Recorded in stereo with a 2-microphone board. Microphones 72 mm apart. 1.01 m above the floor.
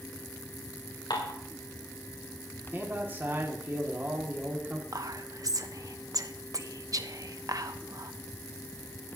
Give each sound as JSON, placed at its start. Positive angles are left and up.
{"t": 1.1, "sound": "dishes clattering", "side_deg": 75, "distance_m": 2.5}
{"t": 2.7, "sound": "a man speaking", "side_deg": -30, "distance_m": 2.0}
{"t": 4.9, "sound": "whispering", "side_deg": -55, "distance_m": 0.9}